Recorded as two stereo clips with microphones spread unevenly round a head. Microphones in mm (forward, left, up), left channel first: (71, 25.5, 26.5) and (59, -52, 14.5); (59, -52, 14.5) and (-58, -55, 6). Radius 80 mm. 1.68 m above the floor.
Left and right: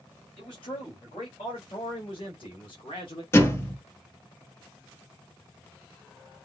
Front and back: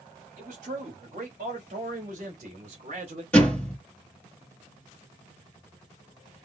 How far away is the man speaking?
About 3 m.